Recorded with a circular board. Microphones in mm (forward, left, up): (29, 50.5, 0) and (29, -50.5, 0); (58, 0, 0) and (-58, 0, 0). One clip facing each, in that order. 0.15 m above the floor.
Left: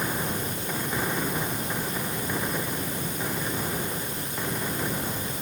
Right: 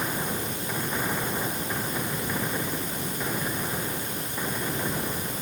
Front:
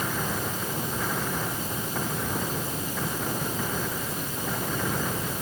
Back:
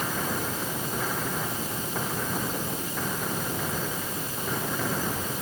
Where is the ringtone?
No ringtone in this recording.